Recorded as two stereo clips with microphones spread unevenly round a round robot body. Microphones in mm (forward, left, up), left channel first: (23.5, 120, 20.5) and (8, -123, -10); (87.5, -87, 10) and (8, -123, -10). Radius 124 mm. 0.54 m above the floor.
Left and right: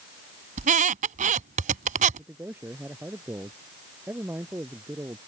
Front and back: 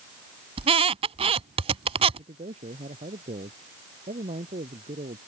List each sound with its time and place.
0.6 s a squeak: 155° right
2.2 s a man speaking: 175° right